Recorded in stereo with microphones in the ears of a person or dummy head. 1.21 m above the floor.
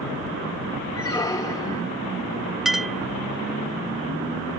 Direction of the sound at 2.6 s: 5° right (ahead or behind).